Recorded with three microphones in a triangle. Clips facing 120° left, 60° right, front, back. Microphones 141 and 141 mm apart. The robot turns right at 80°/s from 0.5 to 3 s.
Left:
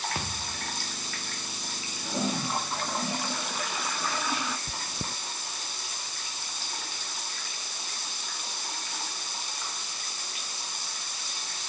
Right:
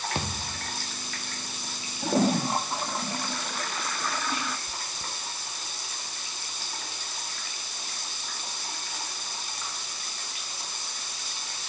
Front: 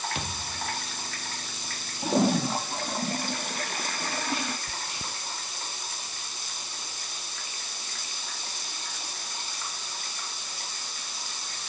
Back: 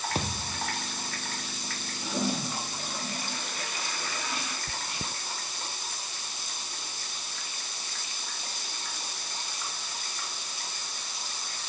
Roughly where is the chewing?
Behind left.